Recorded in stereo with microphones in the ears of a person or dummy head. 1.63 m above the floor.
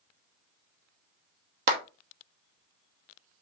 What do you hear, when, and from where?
1.7 s a clap: 55° right (ahead or behind), 1.0 m